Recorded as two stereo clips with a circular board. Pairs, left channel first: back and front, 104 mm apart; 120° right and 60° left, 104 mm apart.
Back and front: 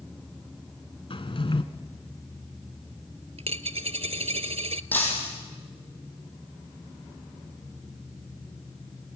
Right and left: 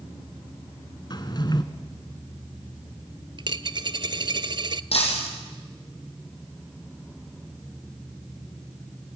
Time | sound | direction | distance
1.1 | a drawer | 160° right | 1.2 m
3.4 | a dropped coin | 20° left | 0.6 m
4.9 | breaking glass | 105° right | 5.5 m